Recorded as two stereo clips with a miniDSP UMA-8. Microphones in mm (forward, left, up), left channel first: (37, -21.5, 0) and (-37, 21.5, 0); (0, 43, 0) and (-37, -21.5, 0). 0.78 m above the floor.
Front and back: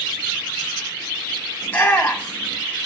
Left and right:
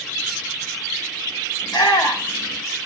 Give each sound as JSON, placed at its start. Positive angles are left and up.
{"t": 1.6, "sound": "a shout", "azimuth_deg": 40, "distance_m": 3.0}